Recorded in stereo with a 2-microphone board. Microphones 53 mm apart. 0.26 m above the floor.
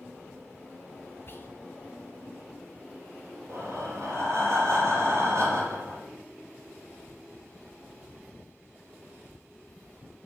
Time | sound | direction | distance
1.3 | whispering | 45° left (ahead or behind) | 1.4 m
3.5 | breathing | 60° right (ahead or behind) | 4 m